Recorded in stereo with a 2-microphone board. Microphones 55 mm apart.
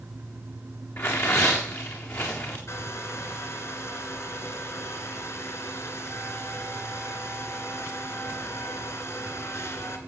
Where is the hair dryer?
55° left (ahead or behind), 2.0 m.